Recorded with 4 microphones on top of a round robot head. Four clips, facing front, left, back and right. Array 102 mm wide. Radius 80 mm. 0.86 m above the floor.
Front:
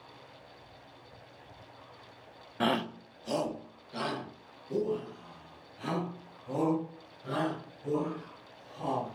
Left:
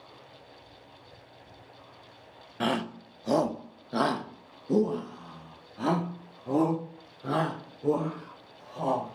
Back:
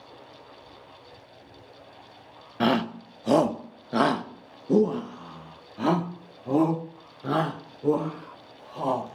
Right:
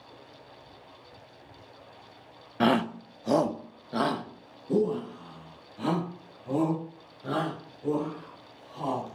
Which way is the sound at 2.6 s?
125° right.